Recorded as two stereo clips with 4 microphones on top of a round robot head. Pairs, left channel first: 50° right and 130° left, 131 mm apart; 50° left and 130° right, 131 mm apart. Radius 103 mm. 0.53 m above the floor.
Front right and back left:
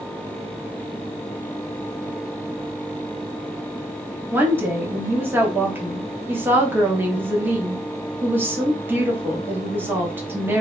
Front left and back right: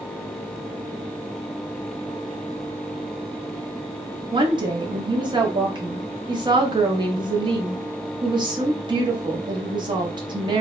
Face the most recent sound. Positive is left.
turn(degrees=-165)